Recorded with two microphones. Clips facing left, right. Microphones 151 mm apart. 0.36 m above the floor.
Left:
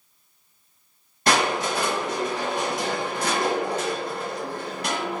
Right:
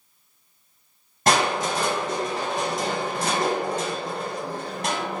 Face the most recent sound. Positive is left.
turn(degrees=-45)  # may be behind; listen again after turning